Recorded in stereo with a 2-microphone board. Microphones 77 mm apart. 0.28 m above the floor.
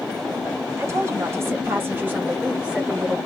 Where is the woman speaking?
40° right (ahead or behind), 1.8 m; by 3.2 s 10° right (ahead or behind), 1.5 m.